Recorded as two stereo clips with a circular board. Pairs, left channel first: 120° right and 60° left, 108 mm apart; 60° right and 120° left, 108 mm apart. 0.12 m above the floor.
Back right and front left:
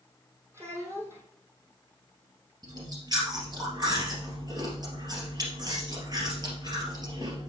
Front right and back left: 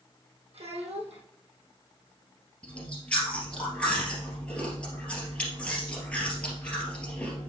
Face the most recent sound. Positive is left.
turn(degrees=20)